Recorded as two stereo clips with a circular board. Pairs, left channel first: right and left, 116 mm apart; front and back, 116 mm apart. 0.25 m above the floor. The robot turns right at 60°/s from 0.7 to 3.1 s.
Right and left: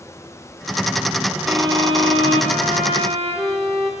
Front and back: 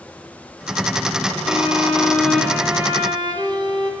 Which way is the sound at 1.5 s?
30° left.